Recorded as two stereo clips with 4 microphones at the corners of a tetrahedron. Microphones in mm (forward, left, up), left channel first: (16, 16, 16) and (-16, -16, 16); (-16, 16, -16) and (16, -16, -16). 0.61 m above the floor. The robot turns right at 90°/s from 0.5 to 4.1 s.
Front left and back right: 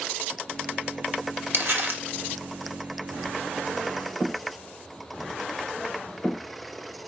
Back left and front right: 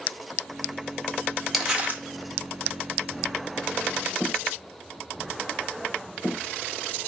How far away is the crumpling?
About 1.0 m.